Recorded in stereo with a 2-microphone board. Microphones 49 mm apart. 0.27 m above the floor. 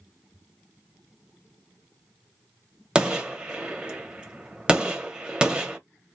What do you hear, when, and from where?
3.0 s a gunshot: 20° right (ahead or behind), 0.7 m